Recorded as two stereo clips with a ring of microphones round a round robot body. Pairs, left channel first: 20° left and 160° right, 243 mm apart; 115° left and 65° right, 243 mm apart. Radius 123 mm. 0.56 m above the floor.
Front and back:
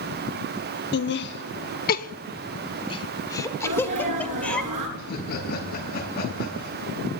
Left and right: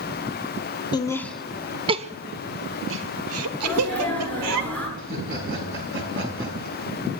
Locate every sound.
0.9 s laughter: 45° left, 0.9 m; by 4.6 s 65° right, 1.9 m
3.6 s a sneeze: 165° right, 7.5 m
5.0 s laughter: 30° right, 5 m